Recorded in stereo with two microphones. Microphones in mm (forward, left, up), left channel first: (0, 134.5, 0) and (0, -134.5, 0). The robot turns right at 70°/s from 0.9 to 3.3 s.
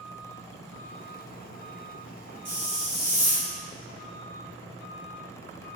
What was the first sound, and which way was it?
A hiss, 75° right.